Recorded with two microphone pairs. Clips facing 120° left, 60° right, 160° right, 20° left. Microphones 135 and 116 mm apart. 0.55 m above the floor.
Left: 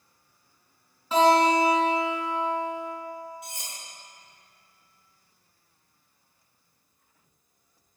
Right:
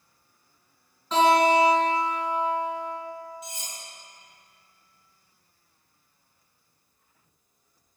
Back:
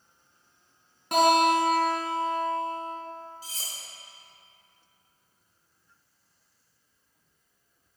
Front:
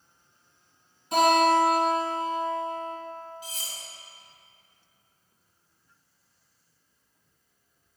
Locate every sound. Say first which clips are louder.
1.1 s a guitar: even, front 1 dB; 155° right, 2 m
3.4 s cutlery clinking: right 1 dB, front 3 dB; 150° left, 1.2 m